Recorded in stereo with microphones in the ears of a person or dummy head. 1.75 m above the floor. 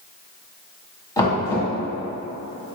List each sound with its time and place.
1.2 s knocking: 20° left (ahead or behind), 1.7 m